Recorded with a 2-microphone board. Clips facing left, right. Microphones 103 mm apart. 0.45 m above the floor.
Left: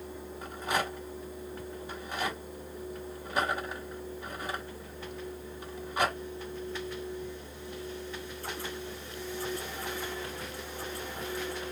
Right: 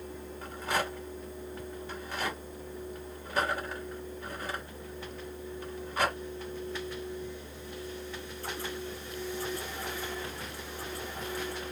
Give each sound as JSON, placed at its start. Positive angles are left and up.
{"t": 0.4, "sound": "a rattle", "side_deg": 15, "distance_m": 1.5}